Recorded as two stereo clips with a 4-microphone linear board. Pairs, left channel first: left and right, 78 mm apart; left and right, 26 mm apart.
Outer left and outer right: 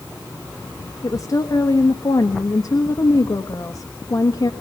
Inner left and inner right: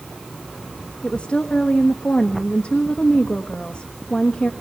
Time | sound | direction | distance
1.0 | a woman speaking | 50° left (ahead or behind) | 1.3 m